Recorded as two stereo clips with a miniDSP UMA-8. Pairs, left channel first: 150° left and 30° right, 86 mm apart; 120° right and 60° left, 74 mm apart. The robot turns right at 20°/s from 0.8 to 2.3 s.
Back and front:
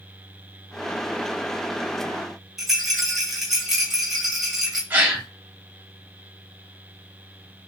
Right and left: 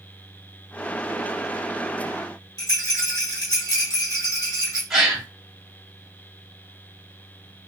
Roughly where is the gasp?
Ahead.